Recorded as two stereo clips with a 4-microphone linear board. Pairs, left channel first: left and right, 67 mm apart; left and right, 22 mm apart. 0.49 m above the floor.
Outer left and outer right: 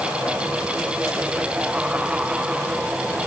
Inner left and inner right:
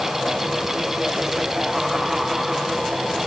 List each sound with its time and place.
Only background noise.